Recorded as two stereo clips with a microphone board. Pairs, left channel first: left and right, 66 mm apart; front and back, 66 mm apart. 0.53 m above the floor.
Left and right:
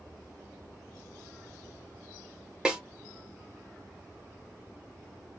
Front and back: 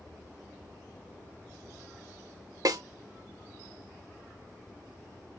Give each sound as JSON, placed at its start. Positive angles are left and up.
{"t": 2.6, "sound": "a snare drum", "azimuth_deg": -165, "distance_m": 0.7}